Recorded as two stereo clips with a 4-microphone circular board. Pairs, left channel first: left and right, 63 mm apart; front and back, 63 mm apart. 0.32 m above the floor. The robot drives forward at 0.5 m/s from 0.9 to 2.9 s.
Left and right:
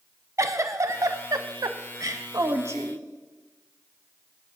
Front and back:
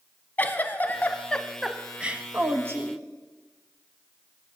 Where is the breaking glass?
I don't hear breaking glass.